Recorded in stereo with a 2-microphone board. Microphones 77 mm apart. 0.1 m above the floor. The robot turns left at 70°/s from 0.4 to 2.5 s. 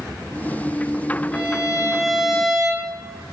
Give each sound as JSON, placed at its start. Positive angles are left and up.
{"t": 1.3, "sound": "a violin", "side_deg": 20, "distance_m": 1.5}